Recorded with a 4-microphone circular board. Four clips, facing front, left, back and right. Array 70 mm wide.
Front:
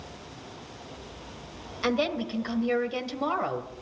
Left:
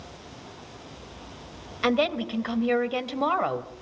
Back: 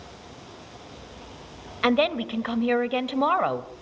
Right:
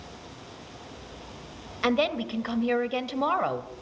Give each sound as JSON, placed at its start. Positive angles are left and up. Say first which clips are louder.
{"t": 1.8, "sound": "a woman speaking", "louder": "left 1 dB, back 5 dB", "azimuth_deg": 175, "distance_m": 1.4}